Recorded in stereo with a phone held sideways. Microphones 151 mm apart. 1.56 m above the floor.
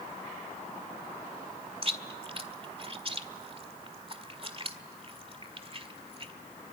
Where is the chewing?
40° right (ahead or behind), 1.7 m.